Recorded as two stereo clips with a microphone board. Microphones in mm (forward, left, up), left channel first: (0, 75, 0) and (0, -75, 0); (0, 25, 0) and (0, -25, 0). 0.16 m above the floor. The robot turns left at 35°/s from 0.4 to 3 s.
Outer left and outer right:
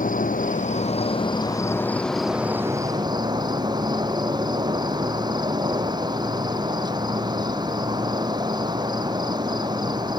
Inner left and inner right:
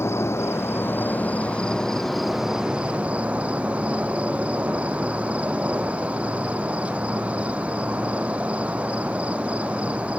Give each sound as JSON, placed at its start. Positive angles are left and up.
{"t": 0.0, "sound": "an insect", "azimuth_deg": 65, "distance_m": 1.6}